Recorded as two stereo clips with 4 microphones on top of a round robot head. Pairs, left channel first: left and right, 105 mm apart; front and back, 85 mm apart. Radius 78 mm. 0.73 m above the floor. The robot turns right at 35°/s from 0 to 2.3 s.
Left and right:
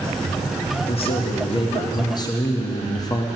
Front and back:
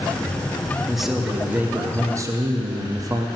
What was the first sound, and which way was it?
A man speaking, 85° left.